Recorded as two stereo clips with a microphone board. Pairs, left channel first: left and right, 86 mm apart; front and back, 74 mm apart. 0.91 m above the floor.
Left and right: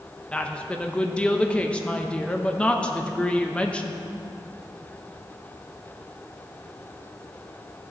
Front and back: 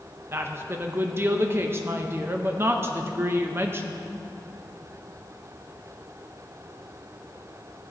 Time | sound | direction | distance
0.3 | a woman speaking | 160° left | 0.7 m